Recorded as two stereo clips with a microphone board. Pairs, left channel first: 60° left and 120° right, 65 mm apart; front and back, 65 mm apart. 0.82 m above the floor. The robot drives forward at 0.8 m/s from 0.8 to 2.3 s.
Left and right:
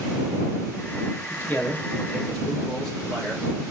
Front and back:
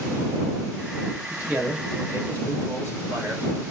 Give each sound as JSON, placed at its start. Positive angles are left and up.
{"t": 1.3, "sound": "a man speaking", "azimuth_deg": 110, "distance_m": 1.3}